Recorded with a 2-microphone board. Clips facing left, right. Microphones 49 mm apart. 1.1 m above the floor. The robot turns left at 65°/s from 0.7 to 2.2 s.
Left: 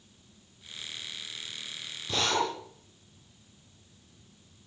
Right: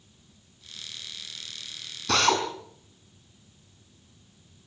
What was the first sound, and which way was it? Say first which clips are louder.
A drill: right 5 dB; 90° right.